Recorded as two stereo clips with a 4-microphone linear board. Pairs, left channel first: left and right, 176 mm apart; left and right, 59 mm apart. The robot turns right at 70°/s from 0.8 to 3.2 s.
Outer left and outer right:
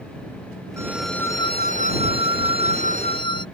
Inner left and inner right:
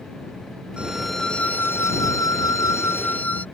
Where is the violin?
15° right; by 3.5 s 150° left.